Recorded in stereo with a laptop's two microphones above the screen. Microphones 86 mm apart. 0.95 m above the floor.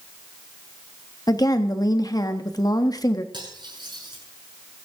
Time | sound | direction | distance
1.3 | a woman speaking | 45° left (ahead or behind) | 1.2 m
3.3 | cutlery clinking | 60° right (ahead or behind) | 7.5 m